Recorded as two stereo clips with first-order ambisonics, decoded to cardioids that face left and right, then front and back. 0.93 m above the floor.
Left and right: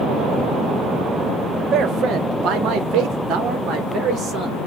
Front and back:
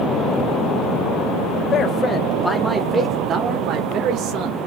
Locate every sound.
1.7 s a man speaking: 50° right, 0.9 m; by 4.6 s 145° right, 1.3 m